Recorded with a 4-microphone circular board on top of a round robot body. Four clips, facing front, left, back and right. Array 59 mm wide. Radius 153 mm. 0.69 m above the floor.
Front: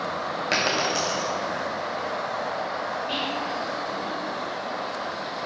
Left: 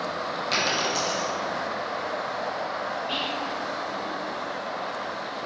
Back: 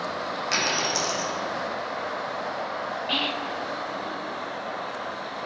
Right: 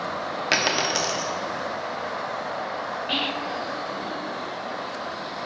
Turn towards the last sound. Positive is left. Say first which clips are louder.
# right 2 dB, even
turn(degrees=-135)